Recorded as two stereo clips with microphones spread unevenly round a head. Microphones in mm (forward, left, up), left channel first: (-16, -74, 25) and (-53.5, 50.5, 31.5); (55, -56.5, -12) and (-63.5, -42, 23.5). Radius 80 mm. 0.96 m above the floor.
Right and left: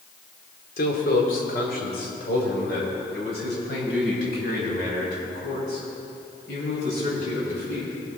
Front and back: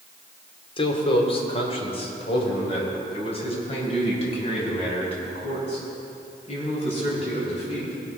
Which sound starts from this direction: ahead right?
A man speaking, at 0.8 s.